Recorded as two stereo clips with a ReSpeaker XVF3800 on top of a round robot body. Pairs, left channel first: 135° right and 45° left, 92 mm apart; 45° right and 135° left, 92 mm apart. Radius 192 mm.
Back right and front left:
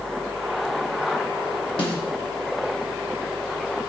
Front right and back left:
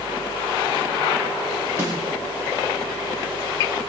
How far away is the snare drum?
About 1.6 m.